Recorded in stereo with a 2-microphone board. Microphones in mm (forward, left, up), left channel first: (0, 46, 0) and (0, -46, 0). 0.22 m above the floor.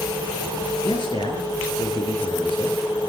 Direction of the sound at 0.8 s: 70° left (ahead or behind).